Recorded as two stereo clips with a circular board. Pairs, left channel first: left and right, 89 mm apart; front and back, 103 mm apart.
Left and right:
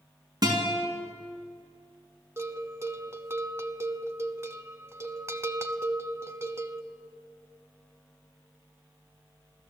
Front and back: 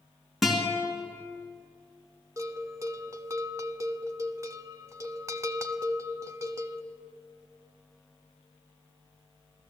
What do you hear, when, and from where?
0.4 s a guitar: 95° right, 3 m
2.4 s a bell: 135° right, 0.6 m